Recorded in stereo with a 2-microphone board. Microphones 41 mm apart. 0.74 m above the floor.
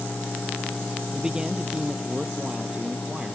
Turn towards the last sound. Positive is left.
turn(degrees=-20)  # may be behind; listen again after turning